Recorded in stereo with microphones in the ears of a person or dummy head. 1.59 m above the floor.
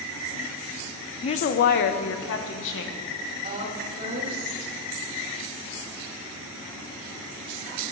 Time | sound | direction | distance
1.2 | a woman speaking | 30° left (ahead or behind) | 0.6 m
3.4 | a woman speaking | 45° right (ahead or behind) | 3 m